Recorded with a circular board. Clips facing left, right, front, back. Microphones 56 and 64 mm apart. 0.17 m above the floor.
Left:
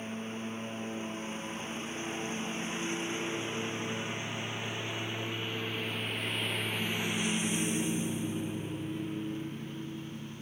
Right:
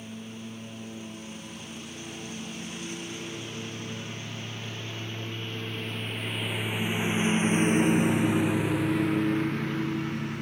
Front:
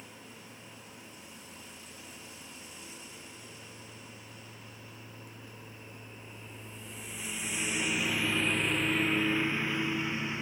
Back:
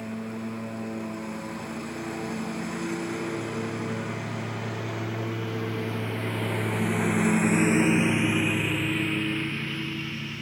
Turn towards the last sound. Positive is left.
turn(degrees=-70)